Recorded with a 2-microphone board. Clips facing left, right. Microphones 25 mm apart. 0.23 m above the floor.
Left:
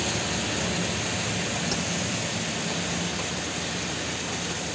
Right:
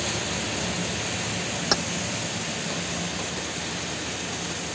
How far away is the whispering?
I don't hear whispering.